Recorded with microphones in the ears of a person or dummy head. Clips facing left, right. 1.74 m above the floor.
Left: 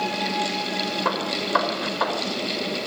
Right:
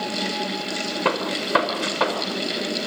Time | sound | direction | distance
1.1 | a gunshot | 40° right (ahead or behind) | 5 m